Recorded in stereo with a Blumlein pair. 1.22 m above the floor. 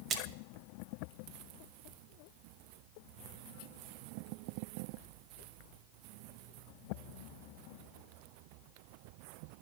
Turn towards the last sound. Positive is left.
turn(degrees=-25)